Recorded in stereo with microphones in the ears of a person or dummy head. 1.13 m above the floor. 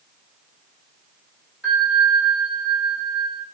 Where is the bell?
10° right (ahead or behind), 0.9 m.